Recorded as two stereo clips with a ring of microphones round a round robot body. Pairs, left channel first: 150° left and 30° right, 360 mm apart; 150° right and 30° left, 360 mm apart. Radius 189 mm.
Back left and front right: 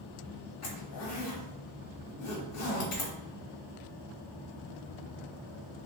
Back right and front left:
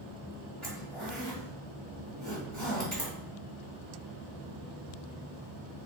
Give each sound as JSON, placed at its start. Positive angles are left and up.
{"t": 0.6, "sound": "a zipper", "azimuth_deg": 125, "distance_m": 1.5}